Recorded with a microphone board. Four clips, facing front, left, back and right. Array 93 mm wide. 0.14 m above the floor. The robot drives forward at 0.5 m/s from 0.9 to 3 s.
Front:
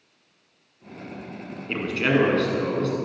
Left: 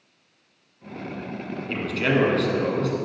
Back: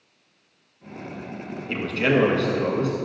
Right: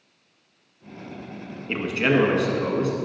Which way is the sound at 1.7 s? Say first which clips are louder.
Right 2 dB, back 1 dB; 50° right.